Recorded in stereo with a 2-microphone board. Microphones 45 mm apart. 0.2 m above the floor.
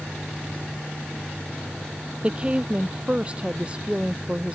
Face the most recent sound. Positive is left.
turn(degrees=-25)  # may be behind; listen again after turning